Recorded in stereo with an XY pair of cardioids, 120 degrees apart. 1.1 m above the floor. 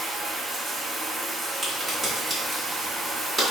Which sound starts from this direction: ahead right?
Running water, at 0.0 s.